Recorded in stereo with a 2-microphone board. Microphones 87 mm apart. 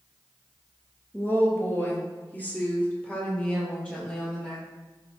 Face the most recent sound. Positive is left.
turn(degrees=15)  # may be behind; listen again after turning